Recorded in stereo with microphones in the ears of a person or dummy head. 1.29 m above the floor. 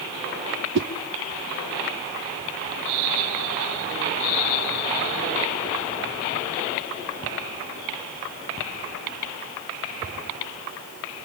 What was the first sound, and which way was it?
A whoosh, 70° right (ahead or behind).